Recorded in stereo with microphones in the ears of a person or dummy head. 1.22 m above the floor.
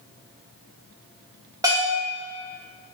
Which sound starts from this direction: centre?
A bell, at 1.6 s.